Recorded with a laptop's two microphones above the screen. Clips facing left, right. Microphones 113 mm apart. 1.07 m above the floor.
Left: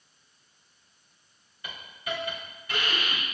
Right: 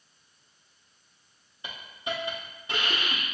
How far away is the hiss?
About 0.7 m.